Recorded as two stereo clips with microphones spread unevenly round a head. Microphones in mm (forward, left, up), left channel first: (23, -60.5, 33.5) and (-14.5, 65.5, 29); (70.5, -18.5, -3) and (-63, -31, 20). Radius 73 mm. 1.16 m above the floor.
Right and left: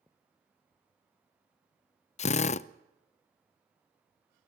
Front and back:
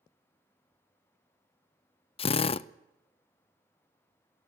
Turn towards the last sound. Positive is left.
turn(degrees=-35)